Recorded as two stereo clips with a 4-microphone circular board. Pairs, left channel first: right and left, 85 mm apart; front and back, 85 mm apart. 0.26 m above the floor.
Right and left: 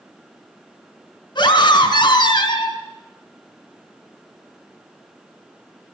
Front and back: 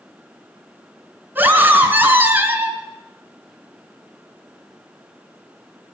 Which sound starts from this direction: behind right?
A scream, at 1.4 s.